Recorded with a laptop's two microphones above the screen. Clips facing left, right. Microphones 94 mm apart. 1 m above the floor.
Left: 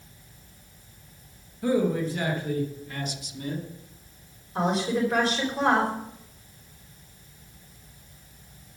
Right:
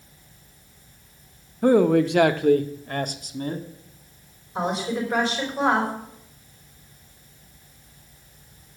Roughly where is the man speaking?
Right.